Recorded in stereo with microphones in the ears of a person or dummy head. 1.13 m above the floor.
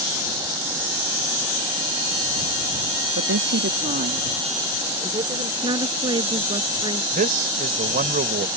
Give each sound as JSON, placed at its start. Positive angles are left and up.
{"t": 3.2, "sound": "a woman speaking", "side_deg": -70}
{"t": 5.6, "sound": "a woman speaking", "side_deg": -30}
{"t": 7.1, "sound": "a man speaking", "side_deg": -45}